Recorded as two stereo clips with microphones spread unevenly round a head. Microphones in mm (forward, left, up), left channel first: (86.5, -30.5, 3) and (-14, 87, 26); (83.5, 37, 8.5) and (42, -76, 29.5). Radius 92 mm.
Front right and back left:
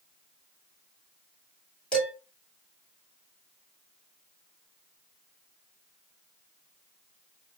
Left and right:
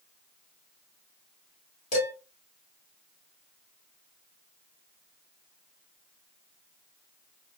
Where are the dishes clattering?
40° left, 1.8 m.